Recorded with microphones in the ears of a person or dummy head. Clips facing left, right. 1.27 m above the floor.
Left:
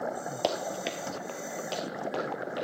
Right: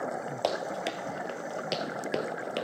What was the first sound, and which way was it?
Running footsteps, 5° left (ahead or behind).